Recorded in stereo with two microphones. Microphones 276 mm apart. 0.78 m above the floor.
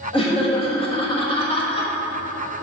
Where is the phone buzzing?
I don't hear a phone buzzing.